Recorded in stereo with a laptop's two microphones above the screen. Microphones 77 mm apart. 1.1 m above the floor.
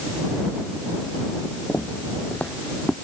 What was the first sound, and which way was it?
Footsteps, 30° left (ahead or behind).